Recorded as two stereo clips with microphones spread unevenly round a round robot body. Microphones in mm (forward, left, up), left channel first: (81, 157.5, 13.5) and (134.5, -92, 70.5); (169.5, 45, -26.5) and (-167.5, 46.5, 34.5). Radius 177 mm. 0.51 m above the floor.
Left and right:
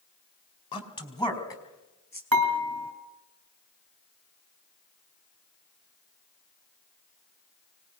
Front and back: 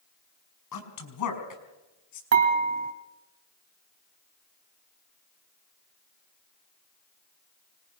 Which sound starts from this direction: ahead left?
A man speaking, at 0.7 s.